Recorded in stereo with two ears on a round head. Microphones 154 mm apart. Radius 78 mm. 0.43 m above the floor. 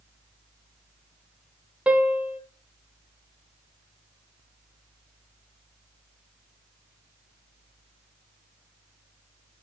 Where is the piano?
5° right (ahead or behind), 1.2 m.